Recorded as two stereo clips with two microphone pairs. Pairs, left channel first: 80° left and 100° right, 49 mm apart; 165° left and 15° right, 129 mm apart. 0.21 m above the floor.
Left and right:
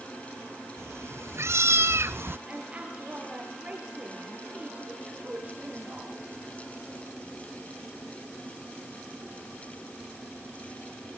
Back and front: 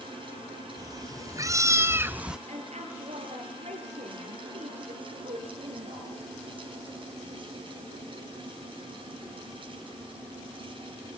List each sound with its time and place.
0.8 s a cat meowing: 75° right, 3 m; by 2.4 s 100° right, 0.7 m
2.5 s a woman speaking: 40° right, 5 m